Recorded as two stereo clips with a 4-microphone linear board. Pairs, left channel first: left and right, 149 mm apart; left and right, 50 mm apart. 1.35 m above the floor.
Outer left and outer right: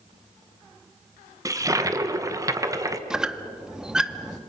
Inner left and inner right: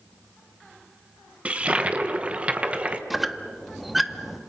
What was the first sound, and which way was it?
A toilet flushing, 25° right (ahead or behind).